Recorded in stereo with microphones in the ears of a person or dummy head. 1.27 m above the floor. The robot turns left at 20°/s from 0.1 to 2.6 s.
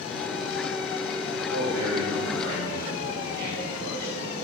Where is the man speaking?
75° right (ahead or behind), 1.8 m; by 4.1 s 55° right (ahead or behind), 1.8 m.